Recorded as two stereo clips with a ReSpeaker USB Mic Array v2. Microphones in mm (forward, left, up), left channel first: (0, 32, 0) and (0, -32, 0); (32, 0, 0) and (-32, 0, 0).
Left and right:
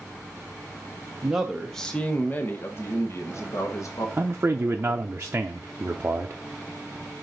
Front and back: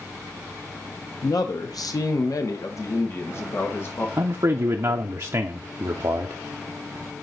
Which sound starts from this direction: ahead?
A man speaking, at 1.2 s.